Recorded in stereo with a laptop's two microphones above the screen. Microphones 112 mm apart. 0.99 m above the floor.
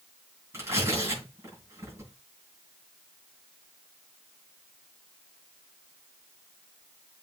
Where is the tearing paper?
25° right (ahead or behind), 6 m.